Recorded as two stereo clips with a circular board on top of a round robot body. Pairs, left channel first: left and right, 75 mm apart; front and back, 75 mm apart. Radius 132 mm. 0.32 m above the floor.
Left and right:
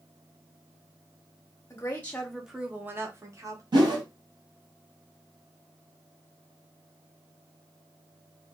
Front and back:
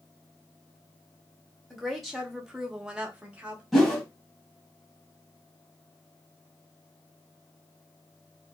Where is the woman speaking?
80° left, 0.9 m; by 3.6 s 110° right, 1.2 m.